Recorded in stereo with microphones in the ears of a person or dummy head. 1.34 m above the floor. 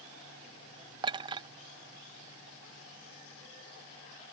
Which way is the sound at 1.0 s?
25° right (ahead or behind).